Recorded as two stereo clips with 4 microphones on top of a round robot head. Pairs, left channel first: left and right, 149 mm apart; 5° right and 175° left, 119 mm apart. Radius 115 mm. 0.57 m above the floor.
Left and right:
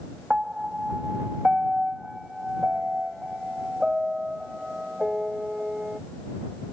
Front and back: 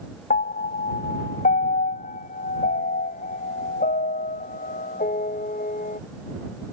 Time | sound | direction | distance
0.3 | a piano | 5° right | ?